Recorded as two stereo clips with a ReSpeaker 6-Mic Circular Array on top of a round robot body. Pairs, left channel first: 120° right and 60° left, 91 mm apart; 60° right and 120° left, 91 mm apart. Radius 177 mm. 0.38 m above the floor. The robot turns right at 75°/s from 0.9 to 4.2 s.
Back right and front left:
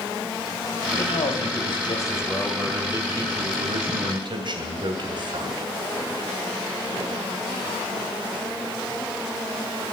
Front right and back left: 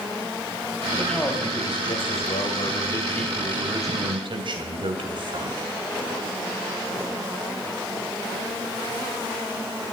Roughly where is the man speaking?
Behind right.